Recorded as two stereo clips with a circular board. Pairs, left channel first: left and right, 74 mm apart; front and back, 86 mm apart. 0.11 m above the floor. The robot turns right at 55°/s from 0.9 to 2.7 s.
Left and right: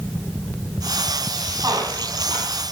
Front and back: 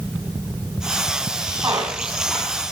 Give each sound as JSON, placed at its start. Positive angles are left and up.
{"t": 1.6, "sound": "a squeak", "azimuth_deg": -130, "distance_m": 9.5}